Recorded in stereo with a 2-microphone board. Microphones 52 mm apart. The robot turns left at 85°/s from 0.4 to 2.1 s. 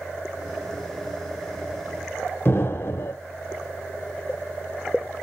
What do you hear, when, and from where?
2.5 s an explosion: 50° left (ahead or behind), 0.6 m